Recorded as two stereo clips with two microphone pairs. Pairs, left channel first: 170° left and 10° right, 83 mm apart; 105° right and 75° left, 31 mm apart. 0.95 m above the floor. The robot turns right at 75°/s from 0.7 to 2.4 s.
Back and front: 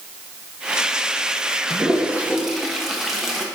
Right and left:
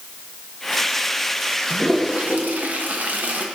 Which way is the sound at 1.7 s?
20° left.